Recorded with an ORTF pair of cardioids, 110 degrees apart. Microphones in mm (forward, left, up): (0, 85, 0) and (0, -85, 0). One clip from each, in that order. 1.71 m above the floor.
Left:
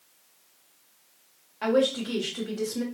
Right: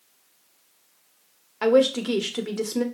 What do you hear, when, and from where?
1.6 s a woman speaking: 50° right, 1.4 m